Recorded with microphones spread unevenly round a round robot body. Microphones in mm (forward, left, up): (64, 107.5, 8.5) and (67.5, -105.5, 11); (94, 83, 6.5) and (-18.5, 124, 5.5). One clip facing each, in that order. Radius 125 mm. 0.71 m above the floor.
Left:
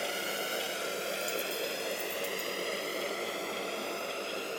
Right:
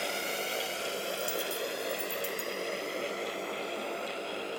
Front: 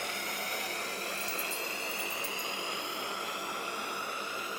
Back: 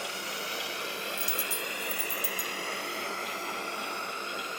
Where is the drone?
5° left; by 4.6 s 60° left.